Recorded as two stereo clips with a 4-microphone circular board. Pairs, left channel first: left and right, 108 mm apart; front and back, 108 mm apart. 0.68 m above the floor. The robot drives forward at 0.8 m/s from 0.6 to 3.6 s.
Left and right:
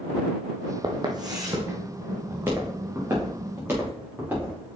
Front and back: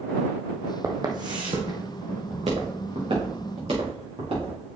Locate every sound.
0.8 s footsteps: 125° right, 1.5 m; by 4.8 s 160° right, 6 m